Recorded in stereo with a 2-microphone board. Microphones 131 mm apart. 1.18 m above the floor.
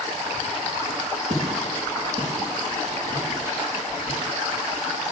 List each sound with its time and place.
1.3 s footsteps: 50° right (ahead or behind), 2 m; by 5.0 s 5° right (ahead or behind), 3 m